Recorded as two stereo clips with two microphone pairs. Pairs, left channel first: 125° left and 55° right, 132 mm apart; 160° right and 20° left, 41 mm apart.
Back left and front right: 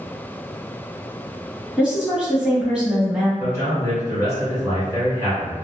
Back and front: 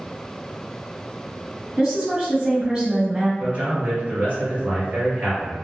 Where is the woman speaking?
10° left, 1.2 m.